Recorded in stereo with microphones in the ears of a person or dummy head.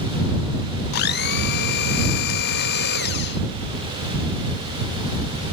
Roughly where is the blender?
Left.